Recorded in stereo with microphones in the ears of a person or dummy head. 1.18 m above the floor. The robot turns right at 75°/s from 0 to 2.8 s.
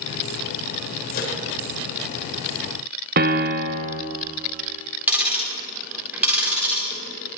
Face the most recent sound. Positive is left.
turn(degrees=-10)  # may be behind; listen again after turning